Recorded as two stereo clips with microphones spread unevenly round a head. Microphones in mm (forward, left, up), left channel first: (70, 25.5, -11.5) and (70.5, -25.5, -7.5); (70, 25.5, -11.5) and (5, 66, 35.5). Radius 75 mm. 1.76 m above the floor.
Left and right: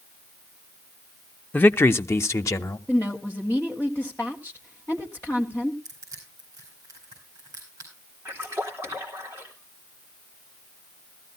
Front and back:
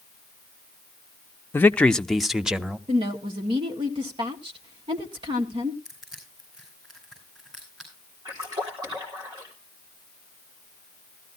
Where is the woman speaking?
165° left, 1.7 m.